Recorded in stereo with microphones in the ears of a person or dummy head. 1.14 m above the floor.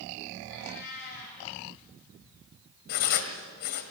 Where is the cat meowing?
65° left (ahead or behind), 4.5 m.